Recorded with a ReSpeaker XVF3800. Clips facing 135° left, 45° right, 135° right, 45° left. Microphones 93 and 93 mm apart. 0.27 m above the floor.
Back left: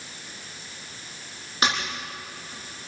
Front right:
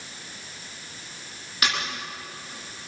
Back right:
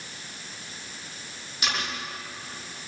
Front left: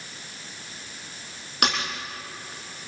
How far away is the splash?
About 9.5 m.